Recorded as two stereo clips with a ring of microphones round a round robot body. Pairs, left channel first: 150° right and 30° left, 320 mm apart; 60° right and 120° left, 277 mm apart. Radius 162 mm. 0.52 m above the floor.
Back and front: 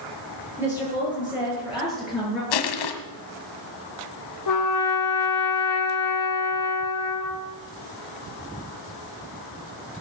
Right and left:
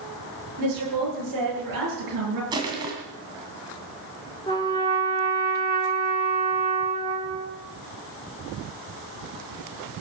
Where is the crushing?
165° right, 1.8 m.